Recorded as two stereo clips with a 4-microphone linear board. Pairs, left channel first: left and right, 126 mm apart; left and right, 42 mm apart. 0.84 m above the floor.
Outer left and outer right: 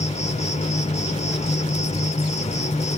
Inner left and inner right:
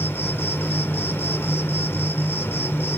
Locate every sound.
0.0 s an insect: 65° left (ahead or behind), 0.9 m